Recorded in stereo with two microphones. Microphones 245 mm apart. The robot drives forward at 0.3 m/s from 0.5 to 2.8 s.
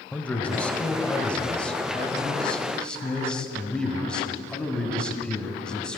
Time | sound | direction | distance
0.1 | a man speaking | 5° left (ahead or behind) | 1.1 m